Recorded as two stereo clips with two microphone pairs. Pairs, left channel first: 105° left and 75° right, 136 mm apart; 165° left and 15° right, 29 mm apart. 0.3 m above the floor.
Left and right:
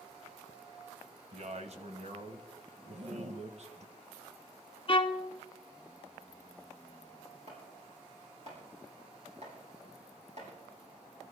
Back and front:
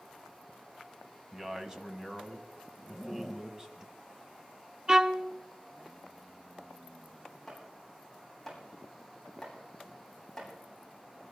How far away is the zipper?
About 1.2 m.